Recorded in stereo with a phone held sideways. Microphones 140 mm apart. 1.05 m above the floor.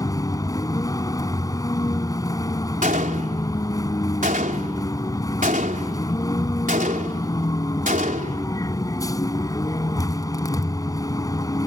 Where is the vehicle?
25° left (ahead or behind).